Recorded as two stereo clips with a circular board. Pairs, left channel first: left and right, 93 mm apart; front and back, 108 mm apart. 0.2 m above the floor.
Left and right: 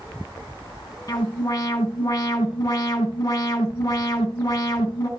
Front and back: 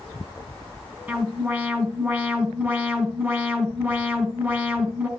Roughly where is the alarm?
Behind left.